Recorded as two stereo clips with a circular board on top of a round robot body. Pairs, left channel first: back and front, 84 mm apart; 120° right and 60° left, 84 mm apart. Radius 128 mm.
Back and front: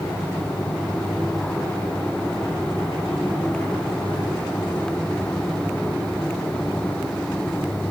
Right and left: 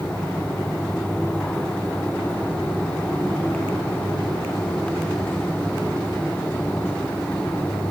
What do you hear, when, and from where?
Only background noise.